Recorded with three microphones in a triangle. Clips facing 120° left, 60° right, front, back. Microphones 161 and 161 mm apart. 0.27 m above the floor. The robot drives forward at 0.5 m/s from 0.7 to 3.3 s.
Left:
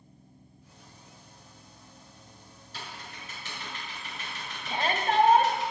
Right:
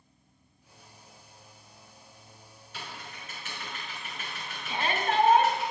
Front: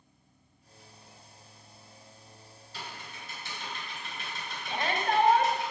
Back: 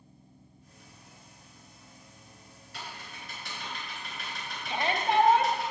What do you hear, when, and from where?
2.7 s typing on a keyboard: 170° left, 4 m
4.7 s a shout: 120° left, 1.2 m